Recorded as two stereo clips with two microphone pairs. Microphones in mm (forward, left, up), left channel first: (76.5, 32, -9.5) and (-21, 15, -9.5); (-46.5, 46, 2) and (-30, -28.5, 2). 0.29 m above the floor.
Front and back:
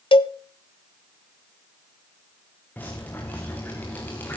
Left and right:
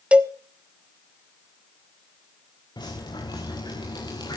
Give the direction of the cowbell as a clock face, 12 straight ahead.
12 o'clock.